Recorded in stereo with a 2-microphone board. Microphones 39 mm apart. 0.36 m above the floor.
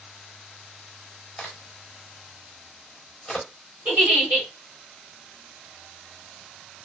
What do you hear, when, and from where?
1.4 s a crack: 15° left (ahead or behind), 0.8 m
3.9 s a giggle: 45° right (ahead or behind), 1.8 m